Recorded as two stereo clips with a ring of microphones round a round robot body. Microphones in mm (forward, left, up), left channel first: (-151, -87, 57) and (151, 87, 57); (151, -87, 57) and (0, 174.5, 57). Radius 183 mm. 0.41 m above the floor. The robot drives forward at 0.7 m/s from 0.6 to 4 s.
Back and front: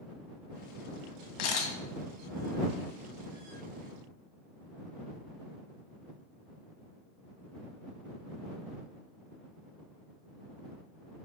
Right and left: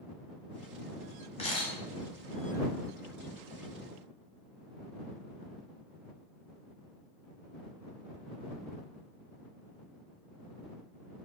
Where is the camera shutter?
135° right, 1.7 m; by 1.7 s 140° right, 1.8 m.